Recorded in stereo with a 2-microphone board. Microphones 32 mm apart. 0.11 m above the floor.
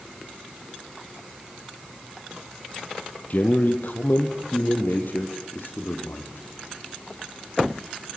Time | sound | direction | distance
3.3 | a man speaking | 50° left (ahead or behind) | 3 m